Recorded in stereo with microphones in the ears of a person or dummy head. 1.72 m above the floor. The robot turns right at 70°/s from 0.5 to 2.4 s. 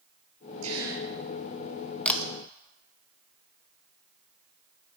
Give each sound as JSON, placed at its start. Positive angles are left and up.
{"t": 0.6, "sound": "a gasp", "azimuth_deg": -40, "distance_m": 5.0}
{"t": 2.0, "sound": "a camera shutter", "side_deg": 10, "distance_m": 1.7}